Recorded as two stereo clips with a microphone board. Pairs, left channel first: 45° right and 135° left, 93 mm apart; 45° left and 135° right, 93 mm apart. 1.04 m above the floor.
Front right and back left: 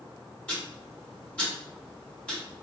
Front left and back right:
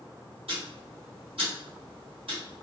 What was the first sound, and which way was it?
Ticking, 125° right.